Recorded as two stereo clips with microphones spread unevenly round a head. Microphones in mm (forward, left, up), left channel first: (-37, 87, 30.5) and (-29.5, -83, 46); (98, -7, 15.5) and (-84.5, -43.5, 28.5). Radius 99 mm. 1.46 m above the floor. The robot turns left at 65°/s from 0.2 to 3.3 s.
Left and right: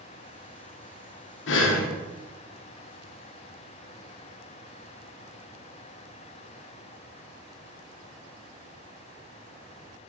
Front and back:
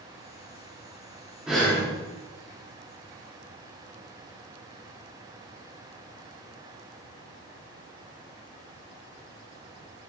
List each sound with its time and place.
1.5 s breathing: 105° left, 0.5 m; by 1.9 s 80° left, 0.5 m